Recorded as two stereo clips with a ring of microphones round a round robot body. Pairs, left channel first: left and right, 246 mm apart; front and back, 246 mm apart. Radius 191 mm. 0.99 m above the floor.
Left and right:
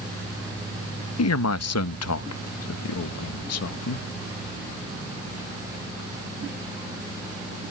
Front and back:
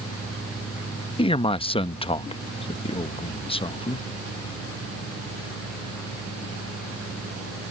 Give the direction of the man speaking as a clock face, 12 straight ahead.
10 o'clock.